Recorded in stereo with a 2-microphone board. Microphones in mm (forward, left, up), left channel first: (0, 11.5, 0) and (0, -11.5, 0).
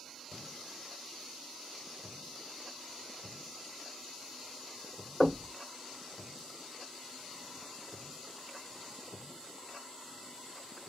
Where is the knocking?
5° left (ahead or behind), 1.4 m.